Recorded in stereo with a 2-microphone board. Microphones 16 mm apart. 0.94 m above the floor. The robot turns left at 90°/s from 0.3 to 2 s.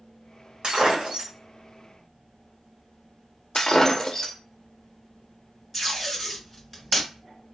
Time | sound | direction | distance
0.6 | breaking glass | 70° right | 1.6 m
3.5 | breaking glass | 35° left (ahead or behind) | 0.6 m
5.7 | tape being pulled | 15° left (ahead or behind) | 1.8 m